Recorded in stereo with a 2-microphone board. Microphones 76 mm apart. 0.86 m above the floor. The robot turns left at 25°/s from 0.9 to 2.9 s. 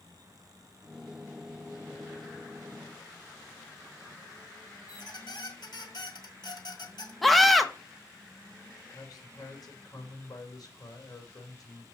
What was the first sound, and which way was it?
A squeak, 70° left (ahead or behind).